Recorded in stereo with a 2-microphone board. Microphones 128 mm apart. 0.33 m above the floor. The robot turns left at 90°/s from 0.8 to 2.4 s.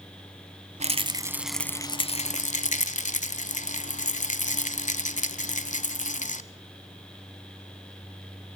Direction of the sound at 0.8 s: 115° right.